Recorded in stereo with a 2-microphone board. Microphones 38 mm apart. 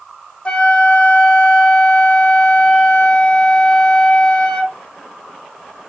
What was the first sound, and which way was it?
A flute, 25° left (ahead or behind).